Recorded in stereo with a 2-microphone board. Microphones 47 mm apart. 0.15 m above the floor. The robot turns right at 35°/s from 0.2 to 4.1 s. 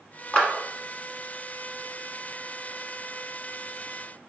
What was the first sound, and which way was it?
A clap, 20° left (ahead or behind).